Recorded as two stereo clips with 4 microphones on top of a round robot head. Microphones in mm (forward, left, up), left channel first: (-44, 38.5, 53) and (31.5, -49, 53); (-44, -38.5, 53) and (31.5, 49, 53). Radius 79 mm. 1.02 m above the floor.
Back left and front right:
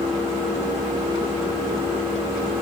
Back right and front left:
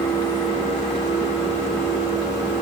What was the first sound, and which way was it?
Only background noise.